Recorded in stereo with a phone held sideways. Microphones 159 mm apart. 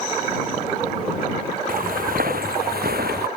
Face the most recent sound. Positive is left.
turn(degrees=-75)  # may be behind; listen again after turning